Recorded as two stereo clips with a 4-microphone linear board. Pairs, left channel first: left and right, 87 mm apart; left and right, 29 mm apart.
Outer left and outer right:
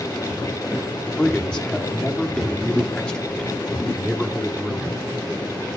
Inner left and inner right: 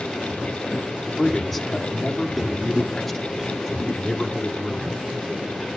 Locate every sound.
1.1 s a man speaking: 10° left (ahead or behind), 1.9 m